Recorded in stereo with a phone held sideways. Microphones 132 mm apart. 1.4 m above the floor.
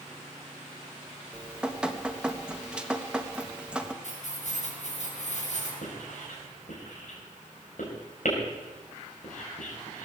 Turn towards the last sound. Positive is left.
turn(degrees=70)  # may be behind; listen again after turning